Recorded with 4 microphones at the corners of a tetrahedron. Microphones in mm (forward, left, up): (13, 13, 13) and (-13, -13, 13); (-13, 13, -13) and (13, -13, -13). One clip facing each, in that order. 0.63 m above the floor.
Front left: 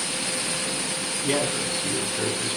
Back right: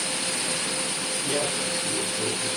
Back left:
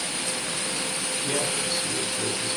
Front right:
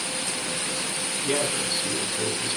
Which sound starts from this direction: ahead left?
A man speaking, at 1.2 s.